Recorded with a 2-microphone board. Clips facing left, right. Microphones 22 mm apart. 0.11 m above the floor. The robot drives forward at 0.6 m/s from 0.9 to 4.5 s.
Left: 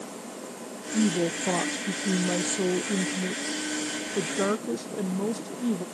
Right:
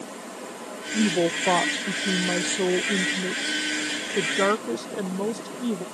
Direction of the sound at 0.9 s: 50° right (ahead or behind).